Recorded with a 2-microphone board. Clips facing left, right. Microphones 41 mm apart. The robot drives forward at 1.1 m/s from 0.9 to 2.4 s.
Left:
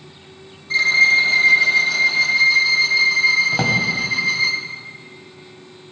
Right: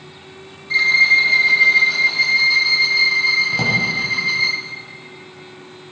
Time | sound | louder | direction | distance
0.7 | a violin | right 1 dB | 5° right (ahead or behind) | 1.1 m
3.5 | a drawer | even | 35° left (ahead or behind) | 1.6 m